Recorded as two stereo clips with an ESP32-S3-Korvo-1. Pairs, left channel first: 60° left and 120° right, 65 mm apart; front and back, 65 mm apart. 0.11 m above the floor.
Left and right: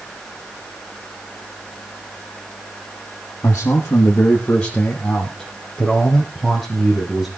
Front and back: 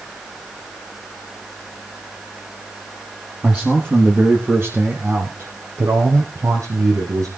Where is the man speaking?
115° left, 3.5 m; by 7.3 s 155° left, 5 m.